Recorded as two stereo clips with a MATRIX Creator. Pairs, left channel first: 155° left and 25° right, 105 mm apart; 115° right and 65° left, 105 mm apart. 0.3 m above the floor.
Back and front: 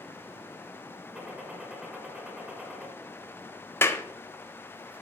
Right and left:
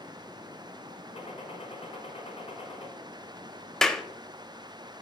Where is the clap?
165° left, 0.7 m.